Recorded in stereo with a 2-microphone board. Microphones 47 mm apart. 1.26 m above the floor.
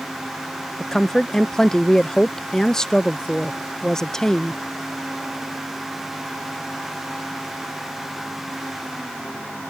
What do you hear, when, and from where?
0.8 s a woman speaking: 10° left (ahead or behind)